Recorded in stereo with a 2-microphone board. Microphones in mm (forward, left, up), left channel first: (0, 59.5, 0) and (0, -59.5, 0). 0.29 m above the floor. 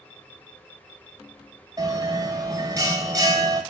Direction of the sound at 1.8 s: 30° right (ahead or behind).